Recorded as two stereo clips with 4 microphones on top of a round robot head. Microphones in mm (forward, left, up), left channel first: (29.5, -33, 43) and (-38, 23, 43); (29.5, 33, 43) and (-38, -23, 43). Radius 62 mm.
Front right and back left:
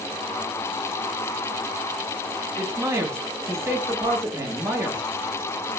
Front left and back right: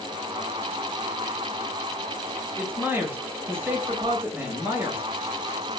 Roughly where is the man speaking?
Behind.